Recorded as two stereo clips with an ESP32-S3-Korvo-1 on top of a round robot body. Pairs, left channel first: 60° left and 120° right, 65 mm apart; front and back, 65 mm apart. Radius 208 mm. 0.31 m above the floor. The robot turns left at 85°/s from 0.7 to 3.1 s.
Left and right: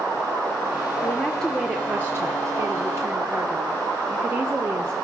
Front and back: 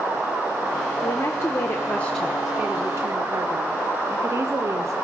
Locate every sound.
1.0 s a woman speaking: 15° left, 1.5 m; by 4.9 s 160° right, 1.5 m